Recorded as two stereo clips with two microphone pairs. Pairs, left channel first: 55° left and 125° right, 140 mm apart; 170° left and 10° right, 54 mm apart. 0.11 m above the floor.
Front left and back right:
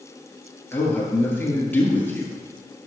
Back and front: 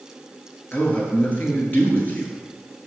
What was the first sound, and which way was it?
A man speaking, 125° left.